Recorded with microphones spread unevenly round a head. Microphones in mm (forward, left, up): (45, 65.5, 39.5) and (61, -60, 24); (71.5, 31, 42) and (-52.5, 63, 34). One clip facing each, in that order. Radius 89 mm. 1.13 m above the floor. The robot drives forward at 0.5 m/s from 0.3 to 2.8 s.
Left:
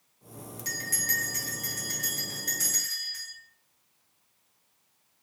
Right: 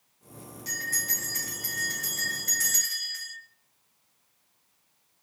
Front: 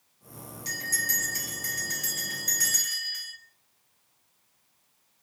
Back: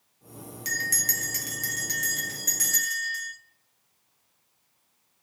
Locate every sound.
0.7 s a bell: 140° left, 0.6 m; by 3.3 s 170° left, 1.5 m